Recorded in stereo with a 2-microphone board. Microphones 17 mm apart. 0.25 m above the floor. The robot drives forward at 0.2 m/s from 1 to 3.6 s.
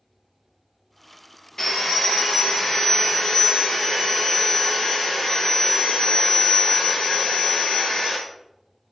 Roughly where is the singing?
No singing in this recording.